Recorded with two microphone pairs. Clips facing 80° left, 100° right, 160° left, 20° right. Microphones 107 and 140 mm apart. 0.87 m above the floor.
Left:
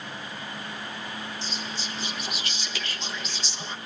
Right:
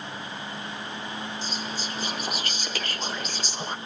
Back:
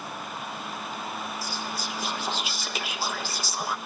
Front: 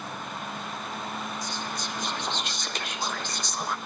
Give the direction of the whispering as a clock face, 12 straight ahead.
4 o'clock.